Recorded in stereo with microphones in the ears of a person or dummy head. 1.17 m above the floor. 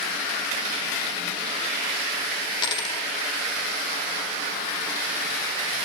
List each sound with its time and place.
2.6 s a dropped coin: 25° left (ahead or behind), 1.1 m